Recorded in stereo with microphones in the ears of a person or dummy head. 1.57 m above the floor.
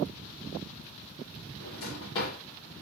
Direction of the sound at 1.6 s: 25° left (ahead or behind).